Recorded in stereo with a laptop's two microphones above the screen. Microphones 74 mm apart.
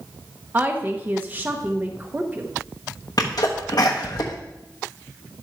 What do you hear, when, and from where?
0.5 s a woman speaking: 25° right (ahead or behind), 0.8 m
3.2 s a sneeze: 60° left (ahead or behind), 1.0 m